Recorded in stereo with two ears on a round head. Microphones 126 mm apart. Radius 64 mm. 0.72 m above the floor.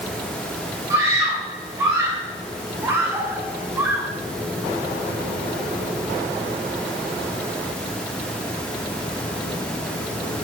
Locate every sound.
0.9 s a scream: 20° right (ahead or behind), 3.5 m; by 4.1 s 15° right (ahead or behind), 1.4 m